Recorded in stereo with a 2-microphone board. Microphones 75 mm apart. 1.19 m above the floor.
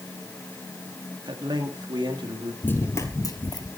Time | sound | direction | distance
1.3 | a man speaking | 70° right (ahead or behind) | 2.0 m
2.6 | running footsteps | 25° left (ahead or behind) | 1.3 m